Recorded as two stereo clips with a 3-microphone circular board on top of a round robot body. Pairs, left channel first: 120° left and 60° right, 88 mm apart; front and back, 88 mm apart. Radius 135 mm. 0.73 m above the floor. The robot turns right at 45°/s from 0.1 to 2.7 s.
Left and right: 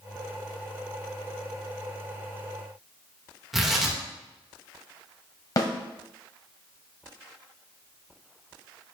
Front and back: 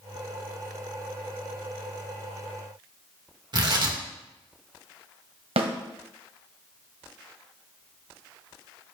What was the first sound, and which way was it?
Tearing paper, 145° right.